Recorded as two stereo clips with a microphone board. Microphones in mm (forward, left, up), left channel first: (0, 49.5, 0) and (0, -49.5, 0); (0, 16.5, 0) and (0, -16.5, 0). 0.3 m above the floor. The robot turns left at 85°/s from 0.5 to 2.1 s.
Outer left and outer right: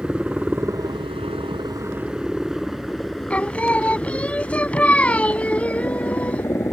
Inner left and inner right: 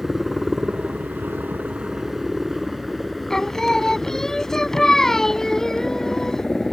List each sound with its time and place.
0.0 s a helicopter: 10° right (ahead or behind); by 6.7 s 25° left (ahead or behind)
3.3 s singing: 15° left (ahead or behind)